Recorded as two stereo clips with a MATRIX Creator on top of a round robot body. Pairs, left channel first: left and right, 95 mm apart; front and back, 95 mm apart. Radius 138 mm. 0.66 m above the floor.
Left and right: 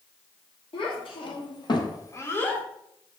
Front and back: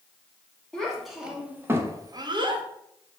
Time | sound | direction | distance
0.7 | a child speaking | 85° left | 1.3 m